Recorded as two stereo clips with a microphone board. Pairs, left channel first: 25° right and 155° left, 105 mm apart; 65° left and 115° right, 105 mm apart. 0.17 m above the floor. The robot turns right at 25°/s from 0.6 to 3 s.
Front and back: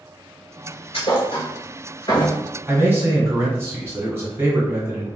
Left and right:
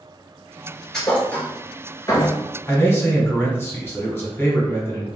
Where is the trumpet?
No trumpet in this recording.